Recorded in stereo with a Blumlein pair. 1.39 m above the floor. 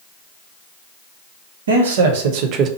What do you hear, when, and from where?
1.7 s a man speaking: 65° right, 1.0 m; by 2.7 s 25° right, 0.6 m